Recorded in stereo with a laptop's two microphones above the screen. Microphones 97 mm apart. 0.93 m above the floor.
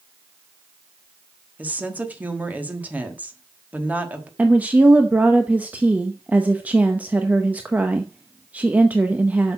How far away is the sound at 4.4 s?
About 0.7 m.